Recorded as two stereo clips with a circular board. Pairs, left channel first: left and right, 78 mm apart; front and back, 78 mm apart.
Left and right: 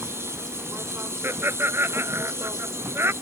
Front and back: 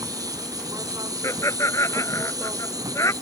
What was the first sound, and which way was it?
An insect, 145° right.